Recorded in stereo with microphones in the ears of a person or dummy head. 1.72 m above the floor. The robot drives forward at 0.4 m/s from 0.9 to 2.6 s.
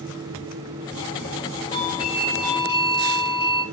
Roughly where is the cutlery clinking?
I don't hear cutlery clinking.